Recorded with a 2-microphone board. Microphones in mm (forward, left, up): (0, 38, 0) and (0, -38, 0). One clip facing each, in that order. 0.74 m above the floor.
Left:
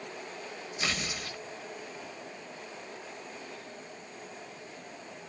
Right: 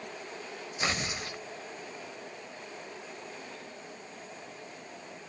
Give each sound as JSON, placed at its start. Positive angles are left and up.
{"t": 0.8, "sound": "tearing paper", "side_deg": -30, "distance_m": 0.8}